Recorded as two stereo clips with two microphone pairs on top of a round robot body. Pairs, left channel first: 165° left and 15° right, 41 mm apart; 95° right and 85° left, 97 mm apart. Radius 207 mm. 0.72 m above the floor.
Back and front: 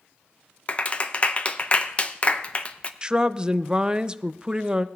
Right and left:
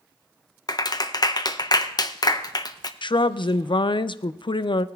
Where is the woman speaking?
80° right, 0.6 m.